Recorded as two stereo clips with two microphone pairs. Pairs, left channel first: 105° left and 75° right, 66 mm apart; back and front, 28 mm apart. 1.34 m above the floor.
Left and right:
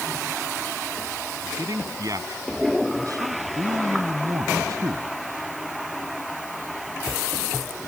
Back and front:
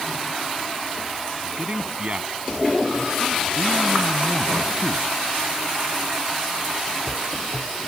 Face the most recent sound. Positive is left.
turn(degrees=-45)